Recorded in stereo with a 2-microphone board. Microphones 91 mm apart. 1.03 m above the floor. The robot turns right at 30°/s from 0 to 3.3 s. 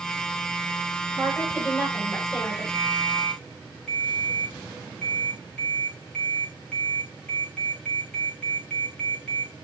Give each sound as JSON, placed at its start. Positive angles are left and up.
{"t": 1.1, "sound": "a woman speaking", "azimuth_deg": 0, "distance_m": 7.0}
{"t": 2.7, "sound": "a ringtone", "side_deg": 30, "distance_m": 4.5}